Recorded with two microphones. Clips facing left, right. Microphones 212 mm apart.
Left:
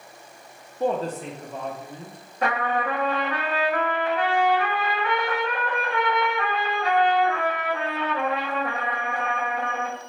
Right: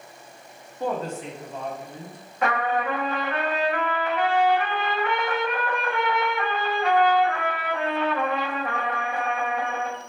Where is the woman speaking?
15° left (ahead or behind), 0.5 m; by 2.2 s 60° left (ahead or behind), 1.1 m.